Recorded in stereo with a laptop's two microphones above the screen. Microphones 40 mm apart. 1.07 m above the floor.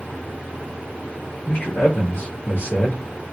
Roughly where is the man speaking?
Left.